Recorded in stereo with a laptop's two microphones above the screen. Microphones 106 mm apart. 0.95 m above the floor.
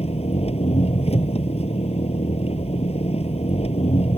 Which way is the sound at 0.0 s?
75° left (ahead or behind).